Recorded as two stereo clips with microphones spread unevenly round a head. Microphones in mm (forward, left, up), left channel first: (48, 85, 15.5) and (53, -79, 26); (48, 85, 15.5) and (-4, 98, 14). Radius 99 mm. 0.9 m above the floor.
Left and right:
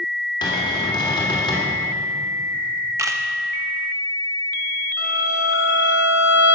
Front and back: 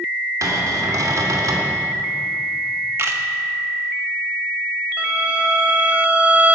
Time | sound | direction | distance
0.4 | a cupboard door | 160° left | 2.5 m
3.0 | a camera shutter | 160° right | 0.9 m
5.0 | a violin | 100° left | 2 m